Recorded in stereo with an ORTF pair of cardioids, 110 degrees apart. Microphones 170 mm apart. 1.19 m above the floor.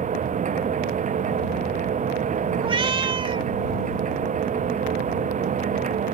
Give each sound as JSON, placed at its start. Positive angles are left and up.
{"t": 0.0, "sound": "a machine running", "azimuth_deg": -45}
{"t": 2.6, "sound": "a cat meowing", "azimuth_deg": -30}